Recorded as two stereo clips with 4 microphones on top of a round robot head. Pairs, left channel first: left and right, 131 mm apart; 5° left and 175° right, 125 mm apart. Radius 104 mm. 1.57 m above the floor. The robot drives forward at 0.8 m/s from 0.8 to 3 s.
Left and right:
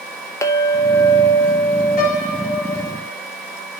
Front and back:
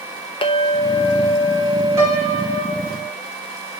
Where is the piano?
115° left, 5.5 m; by 3.2 s 120° left, 6 m.